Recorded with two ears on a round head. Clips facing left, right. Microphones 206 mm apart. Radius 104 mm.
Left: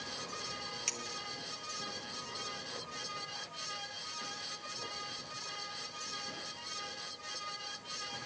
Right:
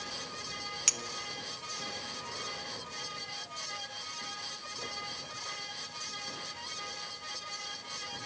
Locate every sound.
0.9 s a clink: 20° right (ahead or behind), 0.6 m